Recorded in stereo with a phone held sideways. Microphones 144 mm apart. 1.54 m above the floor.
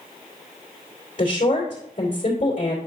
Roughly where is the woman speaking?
Left.